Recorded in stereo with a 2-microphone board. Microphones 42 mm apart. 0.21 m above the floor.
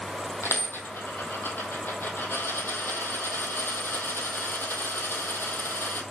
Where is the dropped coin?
60° left (ahead or behind), 1.5 m.